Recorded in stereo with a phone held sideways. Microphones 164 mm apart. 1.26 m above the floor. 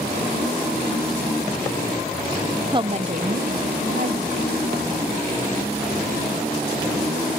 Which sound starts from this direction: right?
A woman speaking, at 2.7 s.